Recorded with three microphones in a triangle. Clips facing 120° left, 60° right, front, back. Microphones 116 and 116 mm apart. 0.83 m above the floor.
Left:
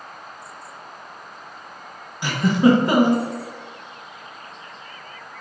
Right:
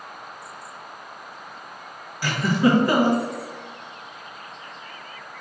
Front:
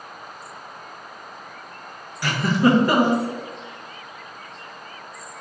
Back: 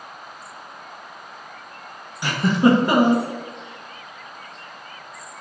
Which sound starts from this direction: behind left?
A giggle, at 2.2 s.